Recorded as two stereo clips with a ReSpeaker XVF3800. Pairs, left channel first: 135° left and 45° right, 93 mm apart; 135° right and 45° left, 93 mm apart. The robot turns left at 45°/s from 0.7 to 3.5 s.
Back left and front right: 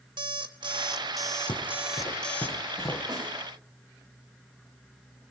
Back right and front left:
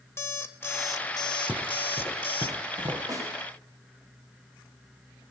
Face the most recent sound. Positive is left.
turn(degrees=-25)